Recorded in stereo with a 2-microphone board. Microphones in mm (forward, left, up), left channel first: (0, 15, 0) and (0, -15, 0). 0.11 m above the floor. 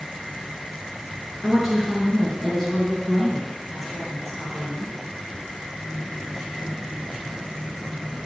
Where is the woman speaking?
5° left (ahead or behind), 1.2 m; by 4.9 s 15° left (ahead or behind), 1.7 m.